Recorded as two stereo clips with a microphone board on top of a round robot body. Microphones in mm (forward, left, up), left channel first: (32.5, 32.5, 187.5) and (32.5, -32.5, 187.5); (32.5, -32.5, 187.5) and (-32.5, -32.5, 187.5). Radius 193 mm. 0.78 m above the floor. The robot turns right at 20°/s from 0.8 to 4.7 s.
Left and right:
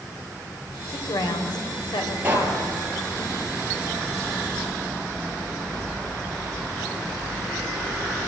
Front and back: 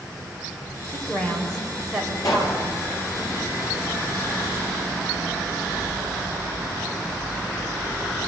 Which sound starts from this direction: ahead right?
A pop, at 2.2 s.